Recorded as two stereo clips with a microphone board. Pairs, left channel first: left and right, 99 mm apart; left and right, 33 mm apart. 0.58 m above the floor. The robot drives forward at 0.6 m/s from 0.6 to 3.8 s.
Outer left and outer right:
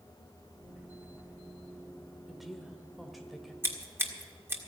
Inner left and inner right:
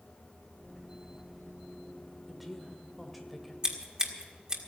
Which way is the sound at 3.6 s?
25° right (ahead or behind).